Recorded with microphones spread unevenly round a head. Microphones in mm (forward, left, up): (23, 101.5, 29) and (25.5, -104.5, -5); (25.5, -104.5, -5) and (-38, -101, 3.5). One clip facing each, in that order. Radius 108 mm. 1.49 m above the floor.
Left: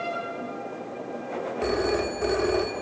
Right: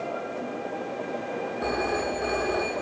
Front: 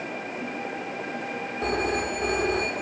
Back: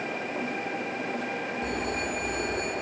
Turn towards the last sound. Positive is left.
turn(degrees=50)